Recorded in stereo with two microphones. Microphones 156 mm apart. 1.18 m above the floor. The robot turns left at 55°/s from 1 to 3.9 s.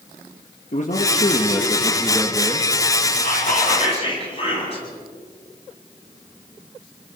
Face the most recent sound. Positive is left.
turn(degrees=40)